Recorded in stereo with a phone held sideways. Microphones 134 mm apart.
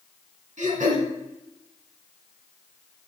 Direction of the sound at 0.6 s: 70° right (ahead or behind).